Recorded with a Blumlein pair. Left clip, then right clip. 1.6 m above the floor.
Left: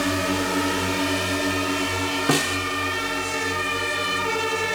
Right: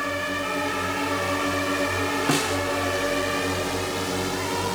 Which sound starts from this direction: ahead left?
A drone, at 0.0 s.